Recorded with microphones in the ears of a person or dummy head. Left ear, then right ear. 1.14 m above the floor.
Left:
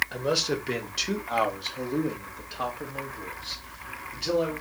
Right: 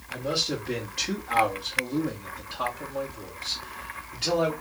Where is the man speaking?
50° left (ahead or behind), 1.2 m; by 4.5 s 15° right (ahead or behind), 2 m.